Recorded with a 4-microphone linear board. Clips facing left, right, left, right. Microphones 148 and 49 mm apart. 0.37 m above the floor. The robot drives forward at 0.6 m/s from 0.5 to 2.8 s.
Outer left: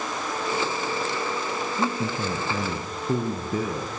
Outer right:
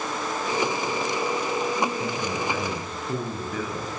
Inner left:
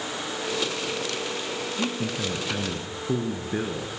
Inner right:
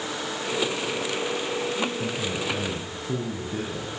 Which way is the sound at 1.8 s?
40° left (ahead or behind).